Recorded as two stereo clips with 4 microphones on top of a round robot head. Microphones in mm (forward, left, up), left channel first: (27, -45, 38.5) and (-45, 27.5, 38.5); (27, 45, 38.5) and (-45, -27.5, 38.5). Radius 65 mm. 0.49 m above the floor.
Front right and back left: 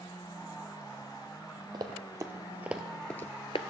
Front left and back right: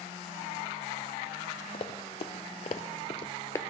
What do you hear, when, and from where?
1.7 s running footsteps: 80° left, 1.2 m; by 3.6 s 15° right, 0.6 m